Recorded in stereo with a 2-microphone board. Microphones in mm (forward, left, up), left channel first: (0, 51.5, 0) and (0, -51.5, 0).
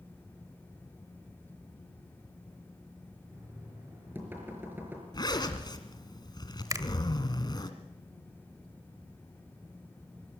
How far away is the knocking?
About 5 m.